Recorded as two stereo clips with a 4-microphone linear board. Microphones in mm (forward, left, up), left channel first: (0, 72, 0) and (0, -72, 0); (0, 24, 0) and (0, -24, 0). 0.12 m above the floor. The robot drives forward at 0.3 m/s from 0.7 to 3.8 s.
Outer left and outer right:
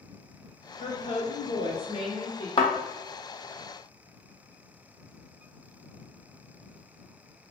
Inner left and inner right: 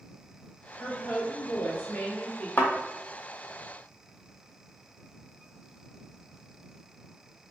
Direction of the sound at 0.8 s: 40° left (ahead or behind).